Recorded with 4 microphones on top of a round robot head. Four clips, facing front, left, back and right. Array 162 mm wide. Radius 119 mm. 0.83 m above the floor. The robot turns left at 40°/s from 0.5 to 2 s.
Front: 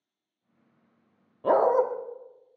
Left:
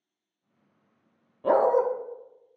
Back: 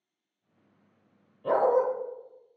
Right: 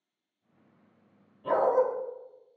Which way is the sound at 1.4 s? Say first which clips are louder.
Left 3 dB, front 2 dB; 40° left.